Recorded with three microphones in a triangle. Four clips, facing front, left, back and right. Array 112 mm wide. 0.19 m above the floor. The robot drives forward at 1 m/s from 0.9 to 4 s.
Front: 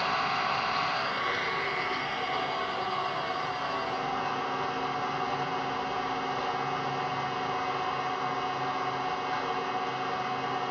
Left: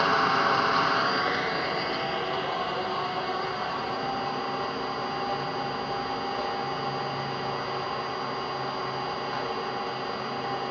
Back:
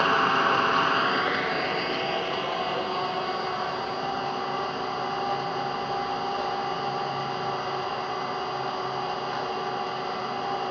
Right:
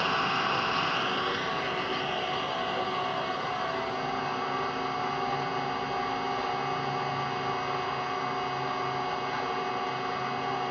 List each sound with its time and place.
0.0 s an engine running: 160° left, 0.8 m; by 10.7 s 175° left, 4 m